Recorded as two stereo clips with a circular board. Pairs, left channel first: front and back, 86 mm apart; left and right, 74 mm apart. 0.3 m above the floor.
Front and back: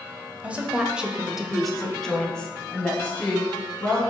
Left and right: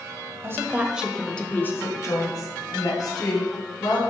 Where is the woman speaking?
115° right, 1.1 m; by 4.0 s 75° left, 2.5 m.